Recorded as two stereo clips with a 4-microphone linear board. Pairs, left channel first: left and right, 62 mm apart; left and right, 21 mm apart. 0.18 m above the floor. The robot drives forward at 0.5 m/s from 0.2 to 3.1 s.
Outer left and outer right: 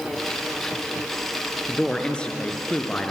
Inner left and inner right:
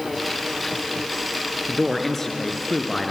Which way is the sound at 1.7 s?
15° left (ahead or behind).